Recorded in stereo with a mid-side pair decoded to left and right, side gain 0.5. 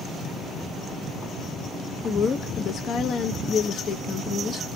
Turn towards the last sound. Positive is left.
turn(degrees=50)